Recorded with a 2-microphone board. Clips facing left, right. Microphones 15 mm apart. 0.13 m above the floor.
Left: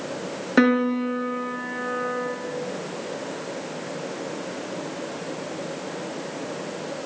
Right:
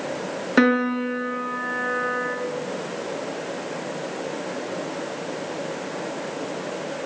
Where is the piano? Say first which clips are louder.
Even; 10° right (ahead or behind), 2.5 m.